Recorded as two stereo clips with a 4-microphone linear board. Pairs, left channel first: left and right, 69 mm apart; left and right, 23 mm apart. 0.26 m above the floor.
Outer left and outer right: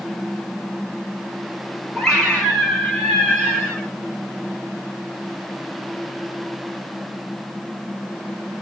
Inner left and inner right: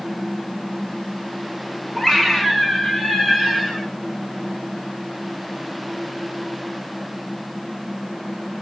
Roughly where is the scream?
Centre.